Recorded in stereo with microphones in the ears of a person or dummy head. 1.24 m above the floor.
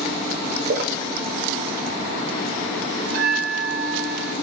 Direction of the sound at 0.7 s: 55° right (ahead or behind).